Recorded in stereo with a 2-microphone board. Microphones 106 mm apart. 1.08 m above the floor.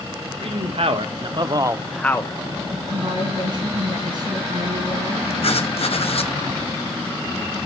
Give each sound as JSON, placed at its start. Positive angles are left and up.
{"t": 0.4, "sound": "a man speaking", "side_deg": -65, "distance_m": 2.0}
{"t": 2.9, "sound": "a woman speaking", "side_deg": -45, "distance_m": 9.5}
{"t": 5.4, "sound": "writing", "side_deg": 65, "distance_m": 1.0}